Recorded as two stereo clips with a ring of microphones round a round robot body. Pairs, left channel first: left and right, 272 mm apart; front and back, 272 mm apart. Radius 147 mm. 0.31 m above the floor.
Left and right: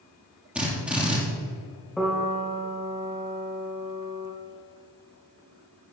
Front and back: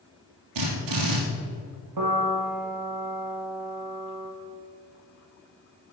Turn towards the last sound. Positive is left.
turn(degrees=180)